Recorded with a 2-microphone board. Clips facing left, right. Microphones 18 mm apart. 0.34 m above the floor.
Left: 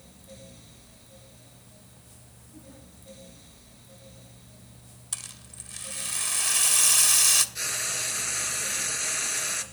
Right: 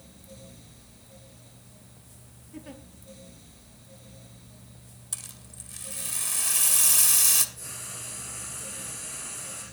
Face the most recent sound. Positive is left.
turn(degrees=75)  # may be behind; listen again after turning